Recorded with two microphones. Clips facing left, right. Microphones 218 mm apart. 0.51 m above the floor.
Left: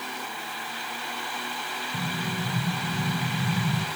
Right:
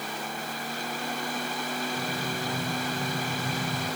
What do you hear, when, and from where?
1.9 s an explosion: 70° left (ahead or behind), 5 m